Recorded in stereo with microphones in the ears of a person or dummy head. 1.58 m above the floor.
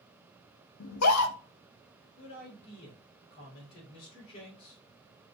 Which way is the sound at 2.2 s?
30° left (ahead or behind).